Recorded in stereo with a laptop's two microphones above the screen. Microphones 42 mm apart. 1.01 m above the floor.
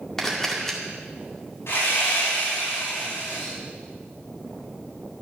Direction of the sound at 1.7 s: 80° left.